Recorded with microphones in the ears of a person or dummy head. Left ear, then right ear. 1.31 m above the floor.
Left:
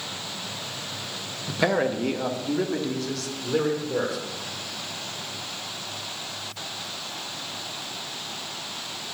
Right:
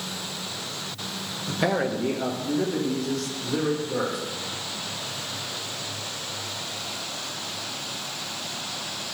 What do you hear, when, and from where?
1.5 s a man speaking: 15° left (ahead or behind), 0.6 m; by 4.2 s 35° left (ahead or behind), 1.9 m